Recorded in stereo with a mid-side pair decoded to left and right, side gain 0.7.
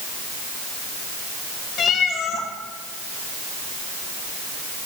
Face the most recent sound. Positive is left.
turn(degrees=40)